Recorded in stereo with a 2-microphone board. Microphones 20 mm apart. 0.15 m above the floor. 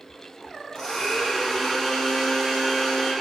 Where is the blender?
25° left (ahead or behind), 3.5 m.